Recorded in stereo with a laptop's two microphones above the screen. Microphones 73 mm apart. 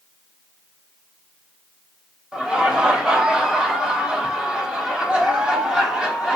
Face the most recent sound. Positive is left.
turn(degrees=-10)  # may be behind; listen again after turning